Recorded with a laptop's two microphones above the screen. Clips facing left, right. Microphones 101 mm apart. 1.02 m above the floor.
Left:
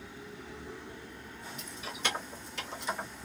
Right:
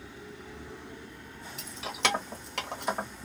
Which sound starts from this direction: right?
Keys jangling, at 1.6 s.